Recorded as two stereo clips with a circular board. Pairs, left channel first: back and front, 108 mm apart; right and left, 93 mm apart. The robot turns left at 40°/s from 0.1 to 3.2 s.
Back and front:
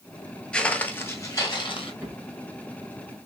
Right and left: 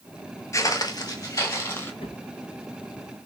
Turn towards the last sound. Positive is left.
turn(degrees=-125)